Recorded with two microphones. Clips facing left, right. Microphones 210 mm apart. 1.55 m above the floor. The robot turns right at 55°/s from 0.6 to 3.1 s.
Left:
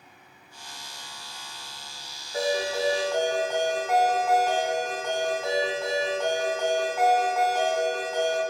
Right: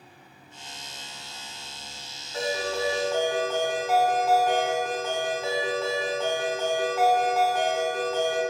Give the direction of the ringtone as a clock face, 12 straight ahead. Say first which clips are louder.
Left 2 dB; 7 o'clock.